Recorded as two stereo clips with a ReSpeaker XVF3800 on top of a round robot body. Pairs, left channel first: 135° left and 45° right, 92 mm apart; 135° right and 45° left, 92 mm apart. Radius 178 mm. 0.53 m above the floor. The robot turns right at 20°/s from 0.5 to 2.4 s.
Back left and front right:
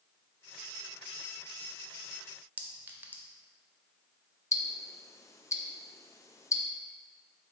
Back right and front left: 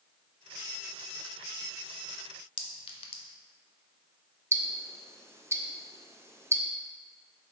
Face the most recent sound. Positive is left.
turn(degrees=95)